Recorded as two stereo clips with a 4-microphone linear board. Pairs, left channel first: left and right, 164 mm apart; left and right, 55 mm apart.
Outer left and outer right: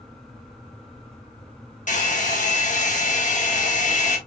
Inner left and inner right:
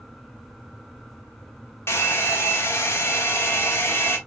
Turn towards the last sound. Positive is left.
turn(degrees=50)  # may be behind; listen again after turning